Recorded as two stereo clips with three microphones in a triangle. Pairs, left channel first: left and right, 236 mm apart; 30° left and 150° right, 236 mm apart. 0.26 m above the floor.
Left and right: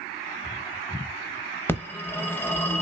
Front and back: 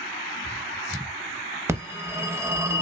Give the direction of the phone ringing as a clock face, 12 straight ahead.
7 o'clock.